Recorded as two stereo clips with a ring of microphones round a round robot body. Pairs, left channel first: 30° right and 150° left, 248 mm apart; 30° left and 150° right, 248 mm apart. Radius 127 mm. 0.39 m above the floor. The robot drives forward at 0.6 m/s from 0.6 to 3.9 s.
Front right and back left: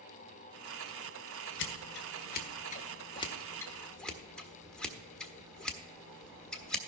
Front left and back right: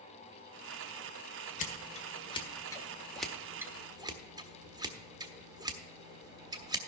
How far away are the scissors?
About 1.8 m.